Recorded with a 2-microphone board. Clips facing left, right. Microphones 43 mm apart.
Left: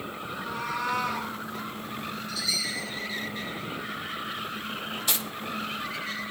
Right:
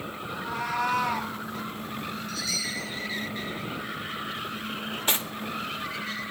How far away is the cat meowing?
About 3.5 m.